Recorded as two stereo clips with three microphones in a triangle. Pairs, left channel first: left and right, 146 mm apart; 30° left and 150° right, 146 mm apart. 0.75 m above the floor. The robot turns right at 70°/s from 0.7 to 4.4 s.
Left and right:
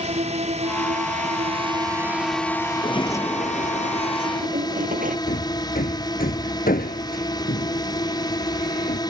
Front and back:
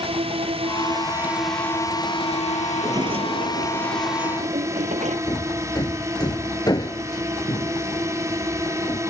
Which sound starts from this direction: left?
Hammering, at 5.3 s.